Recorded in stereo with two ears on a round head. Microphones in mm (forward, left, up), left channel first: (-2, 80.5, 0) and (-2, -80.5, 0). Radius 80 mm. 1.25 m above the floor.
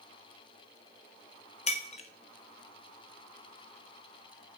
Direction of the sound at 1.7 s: 40° left (ahead or behind).